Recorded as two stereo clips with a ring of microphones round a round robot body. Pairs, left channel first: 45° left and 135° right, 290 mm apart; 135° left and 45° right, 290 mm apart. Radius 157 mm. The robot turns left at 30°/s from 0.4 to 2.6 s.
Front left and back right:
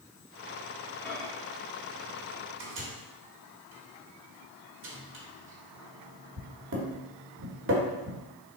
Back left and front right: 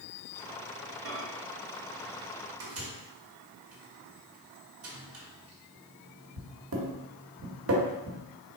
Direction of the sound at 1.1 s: 40° right.